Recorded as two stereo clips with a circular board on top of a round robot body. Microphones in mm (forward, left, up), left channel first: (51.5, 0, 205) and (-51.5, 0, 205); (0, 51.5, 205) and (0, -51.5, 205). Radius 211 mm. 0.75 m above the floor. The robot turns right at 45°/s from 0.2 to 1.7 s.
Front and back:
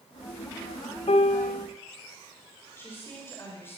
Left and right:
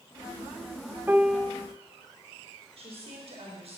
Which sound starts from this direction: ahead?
A piano, at 1.1 s.